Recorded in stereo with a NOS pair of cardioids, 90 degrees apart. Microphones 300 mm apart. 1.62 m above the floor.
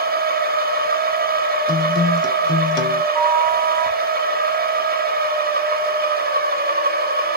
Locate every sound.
0.0 s a machine running: 30° right, 0.9 m
1.7 s a guitar: 15° left, 1.0 m
3.1 s a flute: 60° right, 0.8 m